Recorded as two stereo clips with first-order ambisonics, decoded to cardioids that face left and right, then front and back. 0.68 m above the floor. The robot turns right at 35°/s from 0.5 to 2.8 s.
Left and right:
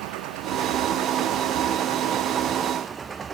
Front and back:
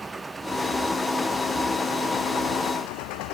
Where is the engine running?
100° right; by 3.4 s 20° right.